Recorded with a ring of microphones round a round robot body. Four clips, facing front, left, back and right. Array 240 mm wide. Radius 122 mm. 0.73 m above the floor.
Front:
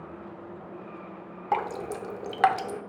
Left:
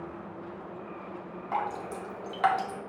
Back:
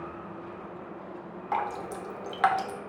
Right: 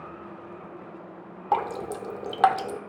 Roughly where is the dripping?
Ahead right.